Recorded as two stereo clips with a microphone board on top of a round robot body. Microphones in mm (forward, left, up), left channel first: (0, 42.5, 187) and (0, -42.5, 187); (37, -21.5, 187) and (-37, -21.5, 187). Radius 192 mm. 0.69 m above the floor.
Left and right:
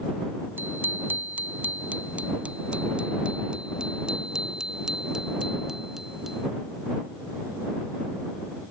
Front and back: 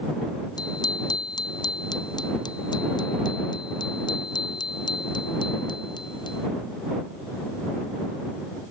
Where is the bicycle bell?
25° right; by 6.5 s 5° right.